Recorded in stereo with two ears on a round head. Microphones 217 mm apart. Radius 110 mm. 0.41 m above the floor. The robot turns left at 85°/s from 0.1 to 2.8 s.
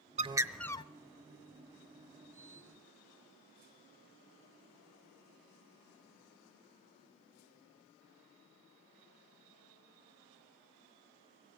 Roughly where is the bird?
Behind right.